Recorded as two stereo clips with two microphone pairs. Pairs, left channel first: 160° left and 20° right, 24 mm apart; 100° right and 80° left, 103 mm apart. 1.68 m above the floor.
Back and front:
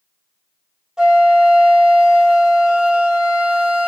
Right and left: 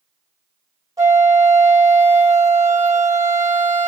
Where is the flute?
35° left, 2 m.